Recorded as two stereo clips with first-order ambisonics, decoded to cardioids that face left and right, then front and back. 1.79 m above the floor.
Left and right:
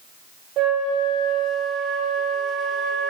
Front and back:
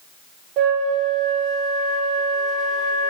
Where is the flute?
145° right, 2.5 m.